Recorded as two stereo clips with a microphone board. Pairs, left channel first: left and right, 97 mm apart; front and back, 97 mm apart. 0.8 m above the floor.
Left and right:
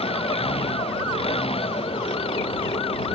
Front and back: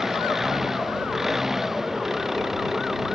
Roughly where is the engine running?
Left.